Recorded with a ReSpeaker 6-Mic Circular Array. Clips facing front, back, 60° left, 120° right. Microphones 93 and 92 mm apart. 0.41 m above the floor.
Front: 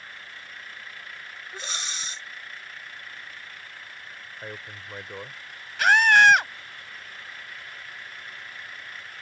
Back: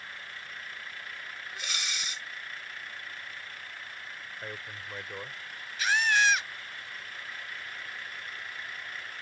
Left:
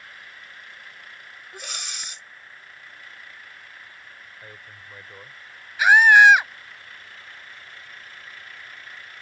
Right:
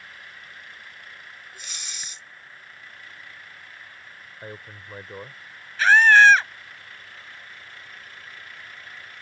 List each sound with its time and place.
1.5 s breathing: 55° left
4.4 s a man speaking: 75° right
5.8 s a scream: 15° right